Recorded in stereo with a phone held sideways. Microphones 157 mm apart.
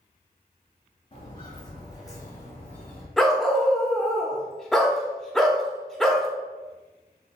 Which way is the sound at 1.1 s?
35° left (ahead or behind).